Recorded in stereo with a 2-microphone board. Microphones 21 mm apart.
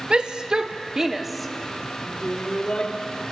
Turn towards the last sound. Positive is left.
turn(degrees=55)  # may be behind; listen again after turning